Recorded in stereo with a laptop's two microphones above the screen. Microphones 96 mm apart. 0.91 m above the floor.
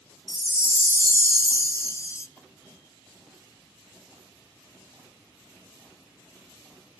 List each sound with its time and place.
0.3 s a chime: 30° left (ahead or behind), 0.7 m